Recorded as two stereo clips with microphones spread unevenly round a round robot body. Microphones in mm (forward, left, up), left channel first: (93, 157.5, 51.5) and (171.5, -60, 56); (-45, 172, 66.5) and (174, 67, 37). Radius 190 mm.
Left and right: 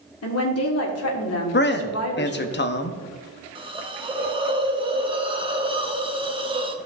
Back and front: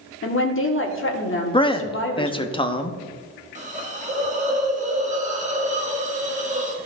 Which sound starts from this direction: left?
A man speaking, at 1.5 s.